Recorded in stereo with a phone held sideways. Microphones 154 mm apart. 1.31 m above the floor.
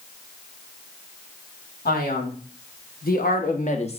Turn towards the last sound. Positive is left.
turn(degrees=40)  # may be behind; listen again after turning